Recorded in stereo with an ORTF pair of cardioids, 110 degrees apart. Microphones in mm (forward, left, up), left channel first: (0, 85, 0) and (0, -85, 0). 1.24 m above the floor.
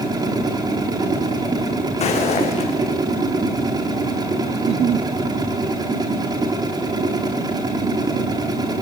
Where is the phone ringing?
No phone ringing in this recording.